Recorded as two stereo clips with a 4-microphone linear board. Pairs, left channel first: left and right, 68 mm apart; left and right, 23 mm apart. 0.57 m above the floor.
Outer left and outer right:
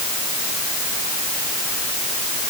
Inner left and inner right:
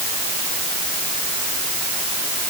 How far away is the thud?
I don't hear a thud.